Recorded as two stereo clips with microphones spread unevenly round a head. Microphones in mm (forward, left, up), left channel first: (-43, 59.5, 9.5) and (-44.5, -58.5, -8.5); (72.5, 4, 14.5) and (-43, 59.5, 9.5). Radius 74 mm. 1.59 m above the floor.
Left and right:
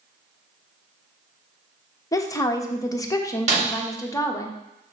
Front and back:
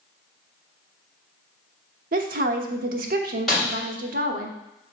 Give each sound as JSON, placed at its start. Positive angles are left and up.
{"t": 2.1, "sound": "a woman speaking", "azimuth_deg": 155, "distance_m": 1.1}
{"t": 3.5, "sound": "breaking glass", "azimuth_deg": -110, "distance_m": 3.0}